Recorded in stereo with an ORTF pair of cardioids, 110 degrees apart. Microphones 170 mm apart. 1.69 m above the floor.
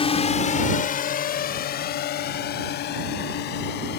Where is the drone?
35° left; by 4.0 s 80° left.